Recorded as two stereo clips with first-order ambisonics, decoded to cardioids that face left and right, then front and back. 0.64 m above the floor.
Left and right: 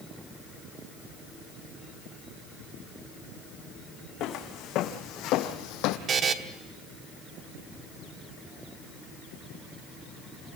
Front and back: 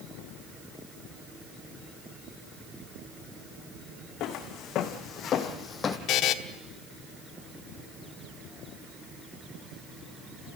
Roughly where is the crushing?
No crushing in this recording.